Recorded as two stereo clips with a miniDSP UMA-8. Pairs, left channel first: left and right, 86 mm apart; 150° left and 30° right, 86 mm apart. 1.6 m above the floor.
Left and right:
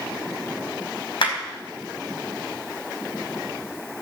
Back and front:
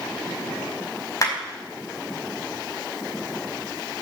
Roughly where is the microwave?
No microwave in this recording.